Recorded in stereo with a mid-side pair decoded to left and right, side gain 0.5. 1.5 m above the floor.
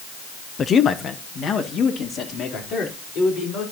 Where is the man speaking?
40° left, 0.7 m; by 3.6 s 65° left, 5.5 m.